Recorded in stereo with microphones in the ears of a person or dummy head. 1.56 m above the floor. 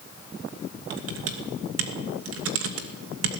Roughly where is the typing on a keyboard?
Right.